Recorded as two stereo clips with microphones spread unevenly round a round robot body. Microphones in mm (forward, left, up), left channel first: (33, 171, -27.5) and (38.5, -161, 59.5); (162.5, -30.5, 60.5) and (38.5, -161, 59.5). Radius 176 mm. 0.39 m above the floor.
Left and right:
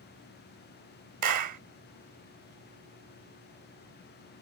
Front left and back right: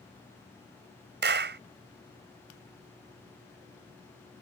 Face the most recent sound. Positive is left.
turn(degrees=-135)